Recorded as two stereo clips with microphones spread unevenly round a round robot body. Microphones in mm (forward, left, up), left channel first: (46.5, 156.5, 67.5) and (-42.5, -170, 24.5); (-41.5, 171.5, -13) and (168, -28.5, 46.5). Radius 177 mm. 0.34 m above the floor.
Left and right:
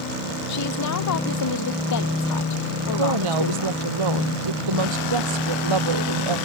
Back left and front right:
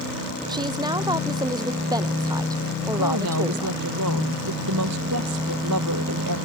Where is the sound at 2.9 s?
90° right.